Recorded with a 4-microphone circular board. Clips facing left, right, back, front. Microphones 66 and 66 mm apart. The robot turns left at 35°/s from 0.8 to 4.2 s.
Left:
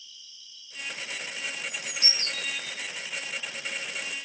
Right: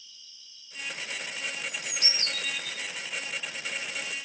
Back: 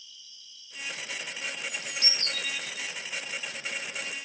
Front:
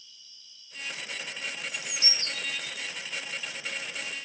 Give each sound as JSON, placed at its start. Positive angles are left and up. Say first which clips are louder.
{"t": 0.0, "sound": "an insect", "louder": "left 3 dB, back 4 dB", "azimuth_deg": -40, "distance_m": 1.3}
{"t": 1.7, "sound": "a bird", "louder": "even, even", "azimuth_deg": -60, "distance_m": 1.7}